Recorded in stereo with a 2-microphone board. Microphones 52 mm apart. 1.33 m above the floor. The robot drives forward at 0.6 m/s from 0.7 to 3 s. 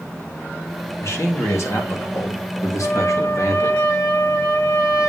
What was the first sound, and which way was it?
A man speaking, 50° left (ahead or behind).